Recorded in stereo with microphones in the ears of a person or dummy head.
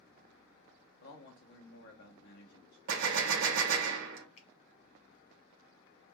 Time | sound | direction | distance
1.0 | a man speaking | 50° left (ahead or behind) | 0.7 m
2.9 | a gunshot | 65° right (ahead or behind) | 0.6 m
4.4 | a finger snap | 45° left (ahead or behind) | 1.3 m